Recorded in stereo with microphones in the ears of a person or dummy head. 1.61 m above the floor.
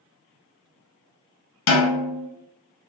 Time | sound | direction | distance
1.7 | a snare drum | 75° left (ahead or behind) | 1.1 m